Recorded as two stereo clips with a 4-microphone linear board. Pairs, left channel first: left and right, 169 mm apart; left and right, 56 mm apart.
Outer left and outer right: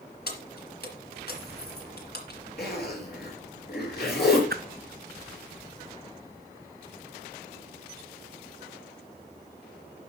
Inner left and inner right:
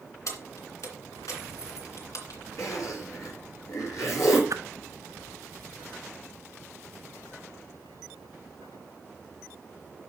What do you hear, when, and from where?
0.3 s keys jangling: 65° left (ahead or behind), 2.5 m
2.6 s a zipper: 65° left (ahead or behind), 5 m
4.5 s a whoosh: 65° right (ahead or behind), 0.7 m